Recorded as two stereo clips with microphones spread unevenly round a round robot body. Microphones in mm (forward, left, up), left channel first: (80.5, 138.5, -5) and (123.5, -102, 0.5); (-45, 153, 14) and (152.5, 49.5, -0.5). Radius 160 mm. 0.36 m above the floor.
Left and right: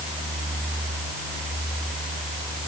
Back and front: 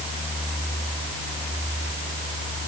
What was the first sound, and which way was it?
Only background noise.